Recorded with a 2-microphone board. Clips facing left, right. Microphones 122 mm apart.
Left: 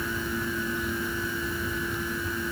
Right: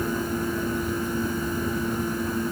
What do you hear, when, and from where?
Only background noise.